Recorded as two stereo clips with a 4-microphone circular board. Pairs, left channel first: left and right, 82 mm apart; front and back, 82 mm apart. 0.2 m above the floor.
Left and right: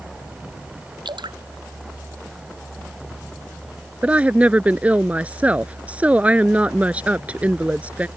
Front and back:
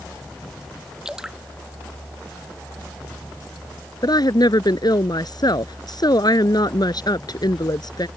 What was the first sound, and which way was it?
Dripping, 100° right.